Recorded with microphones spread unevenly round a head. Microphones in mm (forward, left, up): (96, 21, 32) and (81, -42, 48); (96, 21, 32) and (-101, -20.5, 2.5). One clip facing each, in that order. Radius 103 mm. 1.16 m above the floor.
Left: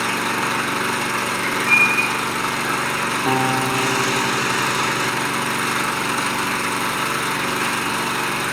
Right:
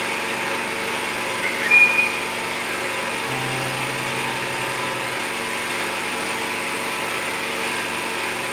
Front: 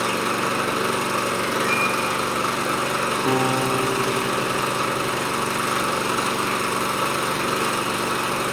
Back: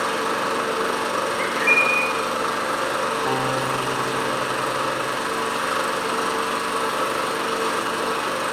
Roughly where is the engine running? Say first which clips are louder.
Left 4 dB, even; left.